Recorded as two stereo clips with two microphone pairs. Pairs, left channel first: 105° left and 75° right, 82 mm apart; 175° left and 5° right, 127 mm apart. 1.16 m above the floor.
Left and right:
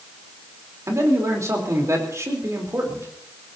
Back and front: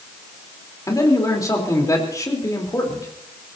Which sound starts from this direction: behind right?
A man speaking, at 0.9 s.